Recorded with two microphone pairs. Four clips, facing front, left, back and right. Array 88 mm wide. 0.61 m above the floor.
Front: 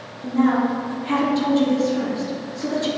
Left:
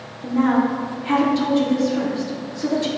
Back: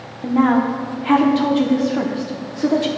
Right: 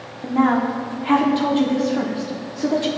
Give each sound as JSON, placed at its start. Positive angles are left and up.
{"t": 0.2, "sound": "a woman speaking", "azimuth_deg": -150, "distance_m": 1.0}